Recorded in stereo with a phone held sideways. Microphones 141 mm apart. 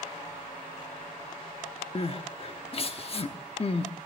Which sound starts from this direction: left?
Crying, at 1.9 s.